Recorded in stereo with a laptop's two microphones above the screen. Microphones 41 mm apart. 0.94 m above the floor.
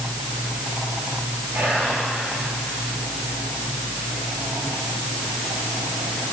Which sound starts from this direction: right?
Whispering, at 1.5 s.